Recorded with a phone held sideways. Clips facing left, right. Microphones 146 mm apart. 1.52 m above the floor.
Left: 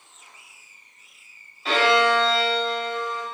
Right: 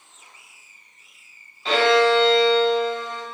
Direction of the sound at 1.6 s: 5° left (ahead or behind).